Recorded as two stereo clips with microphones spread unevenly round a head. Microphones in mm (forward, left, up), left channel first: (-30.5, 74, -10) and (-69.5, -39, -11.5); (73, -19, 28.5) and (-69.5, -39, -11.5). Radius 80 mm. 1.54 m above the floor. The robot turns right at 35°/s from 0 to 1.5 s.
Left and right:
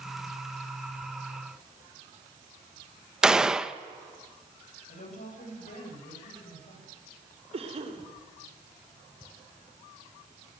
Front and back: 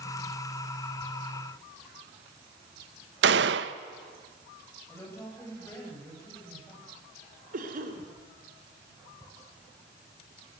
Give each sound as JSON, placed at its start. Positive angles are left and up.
{"t": 3.2, "sound": "a gunshot", "azimuth_deg": 165, "distance_m": 1.0}
{"t": 4.9, "sound": "a woman speaking", "azimuth_deg": 85, "distance_m": 9.0}
{"t": 7.5, "sound": "a cough", "azimuth_deg": -145, "distance_m": 5.0}